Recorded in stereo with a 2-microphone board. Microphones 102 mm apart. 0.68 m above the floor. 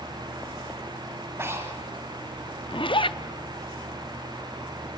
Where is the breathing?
25° right (ahead or behind), 3 m.